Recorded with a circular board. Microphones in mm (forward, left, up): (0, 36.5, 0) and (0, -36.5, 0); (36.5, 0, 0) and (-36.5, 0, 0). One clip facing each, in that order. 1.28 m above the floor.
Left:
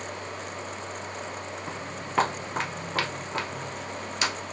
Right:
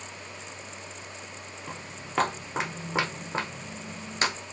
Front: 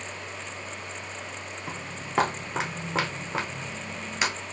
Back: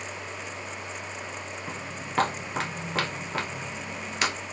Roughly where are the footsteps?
Ahead left.